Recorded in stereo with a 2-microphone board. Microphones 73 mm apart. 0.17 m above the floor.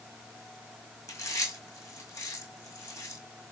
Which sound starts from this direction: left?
Chewing, at 1.1 s.